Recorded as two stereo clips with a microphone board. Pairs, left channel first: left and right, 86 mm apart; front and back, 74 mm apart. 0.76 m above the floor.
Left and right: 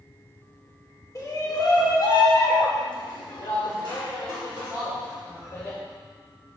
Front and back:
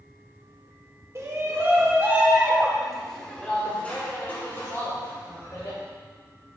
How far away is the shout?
About 2.5 m.